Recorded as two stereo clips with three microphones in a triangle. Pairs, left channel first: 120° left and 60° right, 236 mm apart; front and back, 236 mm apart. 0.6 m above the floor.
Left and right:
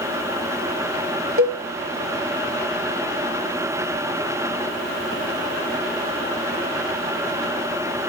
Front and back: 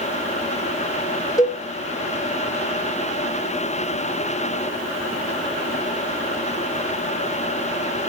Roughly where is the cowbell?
Right.